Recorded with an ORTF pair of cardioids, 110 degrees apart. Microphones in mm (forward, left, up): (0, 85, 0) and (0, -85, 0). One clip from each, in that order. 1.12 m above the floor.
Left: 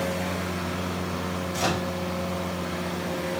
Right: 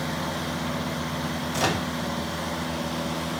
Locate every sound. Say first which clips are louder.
1.5 s a microwave: right 1 dB; 25° right, 0.8 m